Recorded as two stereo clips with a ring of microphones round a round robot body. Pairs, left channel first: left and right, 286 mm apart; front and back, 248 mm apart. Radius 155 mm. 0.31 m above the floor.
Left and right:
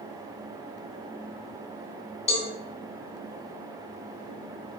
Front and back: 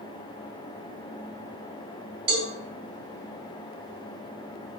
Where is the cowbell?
160° left, 2.5 m.